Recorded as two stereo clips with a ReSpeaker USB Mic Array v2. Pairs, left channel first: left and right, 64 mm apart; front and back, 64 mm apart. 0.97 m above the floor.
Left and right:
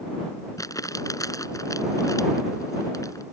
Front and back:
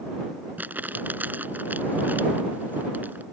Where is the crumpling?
120° left.